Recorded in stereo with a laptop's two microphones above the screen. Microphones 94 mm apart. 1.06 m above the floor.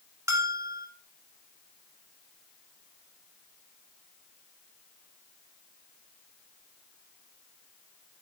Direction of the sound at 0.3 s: 30° right (ahead or behind).